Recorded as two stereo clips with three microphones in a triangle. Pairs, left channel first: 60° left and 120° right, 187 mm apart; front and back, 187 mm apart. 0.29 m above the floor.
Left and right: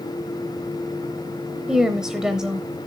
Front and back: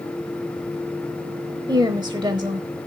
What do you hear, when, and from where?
1.7 s a woman speaking: 160° left, 0.9 m